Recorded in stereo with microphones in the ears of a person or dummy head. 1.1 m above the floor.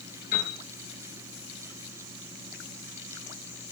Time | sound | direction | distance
0.3 | a piano | 55° left (ahead or behind) | 6.5 m